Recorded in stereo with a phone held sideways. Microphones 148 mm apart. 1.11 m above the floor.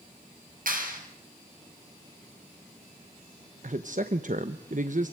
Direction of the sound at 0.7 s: 65° right (ahead or behind).